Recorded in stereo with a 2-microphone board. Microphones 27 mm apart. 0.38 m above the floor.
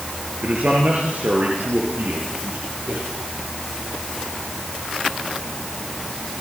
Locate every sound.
0.4 s a man speaking: 75° right (ahead or behind), 5 m; by 3.0 s 85° right, 7.5 m